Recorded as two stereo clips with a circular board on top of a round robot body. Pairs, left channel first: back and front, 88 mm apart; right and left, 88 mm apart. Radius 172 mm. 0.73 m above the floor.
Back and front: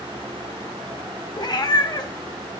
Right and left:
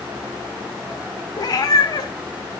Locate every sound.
1.4 s a cat meowing: 140° right, 2.5 m